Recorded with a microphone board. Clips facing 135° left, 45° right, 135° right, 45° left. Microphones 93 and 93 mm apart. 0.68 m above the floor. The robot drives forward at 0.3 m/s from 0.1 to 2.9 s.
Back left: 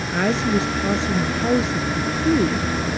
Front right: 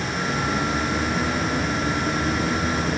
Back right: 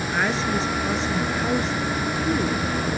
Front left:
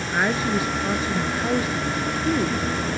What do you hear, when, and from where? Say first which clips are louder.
0.1 s a woman speaking: back left 7 dB, front left 2 dB; 125° left; by 2.9 s 130° left